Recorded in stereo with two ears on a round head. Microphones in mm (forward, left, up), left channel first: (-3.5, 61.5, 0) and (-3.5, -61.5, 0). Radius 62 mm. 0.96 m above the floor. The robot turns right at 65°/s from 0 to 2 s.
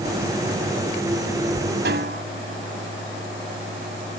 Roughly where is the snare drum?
Right.